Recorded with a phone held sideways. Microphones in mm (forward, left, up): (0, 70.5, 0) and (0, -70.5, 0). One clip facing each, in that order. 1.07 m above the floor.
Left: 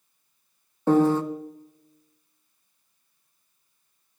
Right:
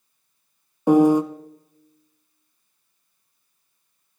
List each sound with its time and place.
0.9 s a piano: 15° right (ahead or behind), 0.6 m